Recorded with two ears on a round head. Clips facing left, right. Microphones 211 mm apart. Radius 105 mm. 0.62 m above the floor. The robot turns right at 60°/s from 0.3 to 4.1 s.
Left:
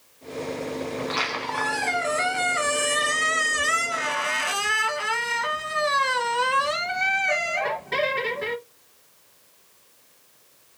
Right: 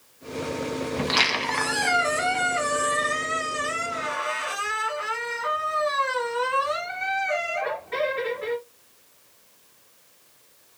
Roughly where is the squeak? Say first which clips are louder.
Right 2 dB; right.